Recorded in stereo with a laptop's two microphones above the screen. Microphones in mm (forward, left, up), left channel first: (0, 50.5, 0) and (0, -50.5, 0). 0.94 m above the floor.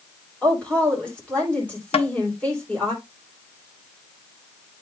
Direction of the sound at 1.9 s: 65° left (ahead or behind).